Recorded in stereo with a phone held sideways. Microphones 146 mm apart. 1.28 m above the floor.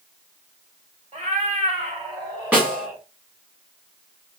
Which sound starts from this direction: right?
A cat meowing, at 1.1 s.